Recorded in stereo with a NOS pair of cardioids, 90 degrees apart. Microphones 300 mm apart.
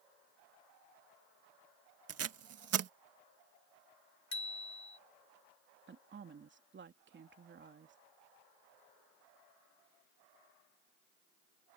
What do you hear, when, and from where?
2.1 s tape being pulled: 55° right
4.3 s a bicycle bell: 65° left
5.9 s a woman speaking: 40° right